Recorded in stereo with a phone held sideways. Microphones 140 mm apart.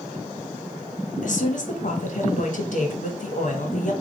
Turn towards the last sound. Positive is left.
turn(degrees=65)  # may be behind; listen again after turning